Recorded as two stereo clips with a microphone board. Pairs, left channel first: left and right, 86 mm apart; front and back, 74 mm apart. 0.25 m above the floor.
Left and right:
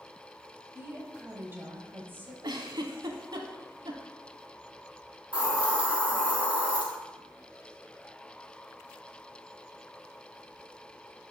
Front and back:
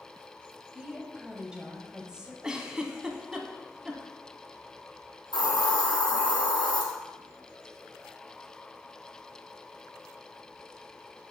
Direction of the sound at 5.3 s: 10° right.